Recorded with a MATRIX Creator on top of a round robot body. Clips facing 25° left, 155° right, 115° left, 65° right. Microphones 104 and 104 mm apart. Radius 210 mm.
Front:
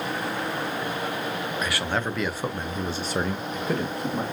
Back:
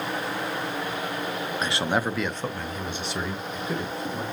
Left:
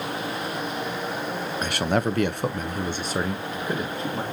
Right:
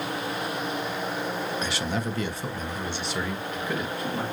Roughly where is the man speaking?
Behind left.